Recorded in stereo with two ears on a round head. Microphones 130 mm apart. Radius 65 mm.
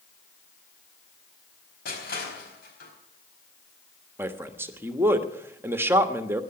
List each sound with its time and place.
1.9 s crushing: 75° left (ahead or behind), 4.5 m
4.2 s a man speaking: 15° right (ahead or behind), 1.1 m